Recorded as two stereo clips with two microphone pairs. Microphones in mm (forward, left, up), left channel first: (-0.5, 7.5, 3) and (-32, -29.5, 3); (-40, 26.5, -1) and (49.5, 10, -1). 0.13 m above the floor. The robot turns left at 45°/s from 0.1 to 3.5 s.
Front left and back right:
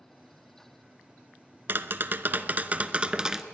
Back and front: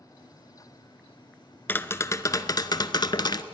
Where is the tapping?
130° right, 0.6 m; by 3.4 s 155° left, 0.6 m.